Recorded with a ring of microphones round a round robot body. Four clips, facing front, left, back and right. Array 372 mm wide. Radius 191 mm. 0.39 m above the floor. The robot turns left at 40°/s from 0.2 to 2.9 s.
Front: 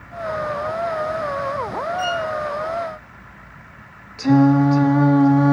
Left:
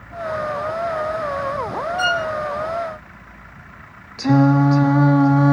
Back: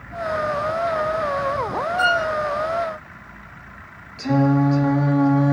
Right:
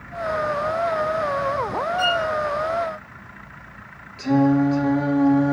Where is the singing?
65° left, 1.0 m.